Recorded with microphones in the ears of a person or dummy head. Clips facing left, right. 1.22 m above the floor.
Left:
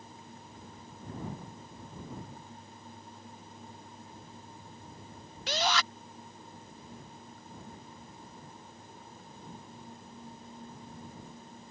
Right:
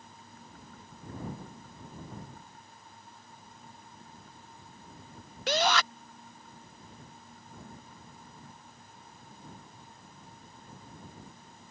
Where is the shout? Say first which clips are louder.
Right 4 dB; 40° right (ahead or behind).